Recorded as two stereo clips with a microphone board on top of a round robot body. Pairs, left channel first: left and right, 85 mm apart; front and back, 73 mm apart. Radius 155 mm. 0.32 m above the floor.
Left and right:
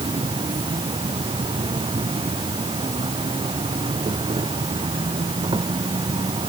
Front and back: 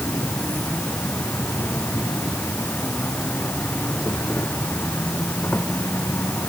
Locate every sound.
0.0 s an insect: 70° right